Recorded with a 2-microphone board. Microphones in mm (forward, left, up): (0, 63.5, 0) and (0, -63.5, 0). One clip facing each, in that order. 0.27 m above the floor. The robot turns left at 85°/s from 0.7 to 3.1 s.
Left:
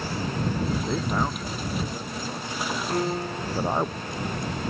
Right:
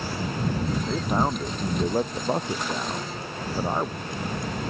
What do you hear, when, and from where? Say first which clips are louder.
0.9 s a man speaking: right 2 dB; 5° left; by 3.9 s 175° left
2.9 s a piano: left 6 dB; 65° left (ahead or behind); by 3.5 s 45° left (ahead or behind)